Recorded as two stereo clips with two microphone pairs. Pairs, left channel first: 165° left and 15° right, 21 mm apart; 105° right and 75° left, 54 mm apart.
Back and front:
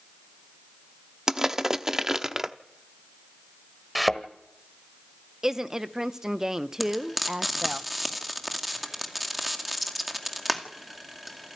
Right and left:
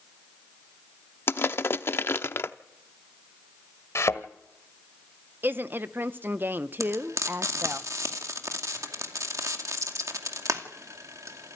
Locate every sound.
1.3 s crushing: 85° right, 0.8 m
4.0 s a thud: 110° right, 1.4 m
5.4 s a woman speaking: 40° left, 0.9 m
6.8 s frying: 70° left, 2 m